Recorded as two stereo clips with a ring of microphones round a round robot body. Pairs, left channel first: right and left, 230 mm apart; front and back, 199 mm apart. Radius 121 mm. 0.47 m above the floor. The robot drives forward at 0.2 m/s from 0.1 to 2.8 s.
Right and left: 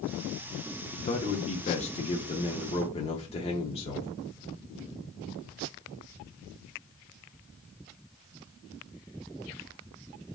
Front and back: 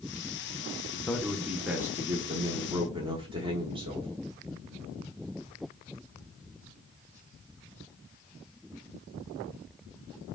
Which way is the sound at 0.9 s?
80° right.